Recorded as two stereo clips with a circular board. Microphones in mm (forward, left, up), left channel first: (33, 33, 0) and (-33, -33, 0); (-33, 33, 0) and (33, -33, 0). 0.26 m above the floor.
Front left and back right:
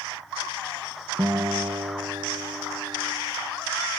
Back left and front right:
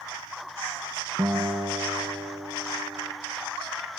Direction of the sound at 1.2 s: 105° right.